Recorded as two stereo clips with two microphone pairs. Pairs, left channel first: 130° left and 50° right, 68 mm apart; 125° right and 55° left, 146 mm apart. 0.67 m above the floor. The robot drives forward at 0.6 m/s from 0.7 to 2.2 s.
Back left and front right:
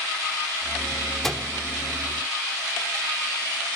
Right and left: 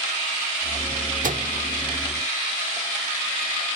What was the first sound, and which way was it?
A microwave, 45° left.